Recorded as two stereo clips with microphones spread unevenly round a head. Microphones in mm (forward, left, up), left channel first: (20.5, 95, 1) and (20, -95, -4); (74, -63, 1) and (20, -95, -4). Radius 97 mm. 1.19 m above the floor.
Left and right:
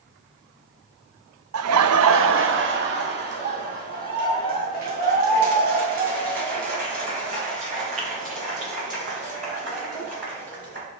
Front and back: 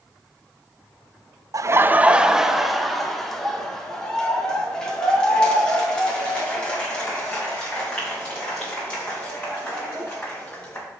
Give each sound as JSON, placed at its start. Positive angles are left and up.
{"t": 1.5, "sound": "laughter", "azimuth_deg": -115, "distance_m": 0.7}